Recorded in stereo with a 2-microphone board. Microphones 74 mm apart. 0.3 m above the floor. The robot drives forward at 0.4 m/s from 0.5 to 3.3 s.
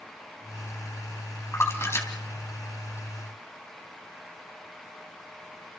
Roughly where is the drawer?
No drawer in this recording.